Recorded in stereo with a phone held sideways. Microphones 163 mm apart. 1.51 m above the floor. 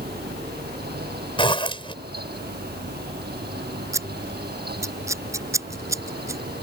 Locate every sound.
0.0 s a fan: 80° right
1.4 s a zipper: 30° left (ahead or behind)
3.9 s scissors: 20° right (ahead or behind)